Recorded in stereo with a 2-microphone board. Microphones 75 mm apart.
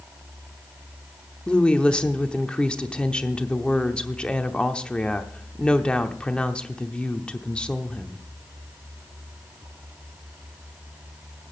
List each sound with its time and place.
1.5 s a woman speaking: 15° left (ahead or behind), 0.8 m